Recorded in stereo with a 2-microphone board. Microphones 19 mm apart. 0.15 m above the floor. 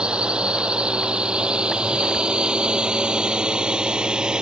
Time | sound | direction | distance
0.0 | a drone | 70° right (ahead or behind) | ?